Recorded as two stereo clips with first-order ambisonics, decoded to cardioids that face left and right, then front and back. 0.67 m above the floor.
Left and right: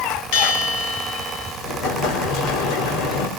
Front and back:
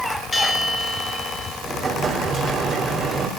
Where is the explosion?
105° left, 3.5 m.